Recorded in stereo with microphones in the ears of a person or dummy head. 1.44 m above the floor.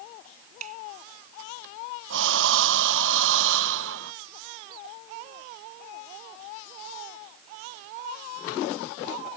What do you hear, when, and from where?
0.6 s a finger snap: 45° right (ahead or behind)
2.1 s breathing: 75° right (ahead or behind)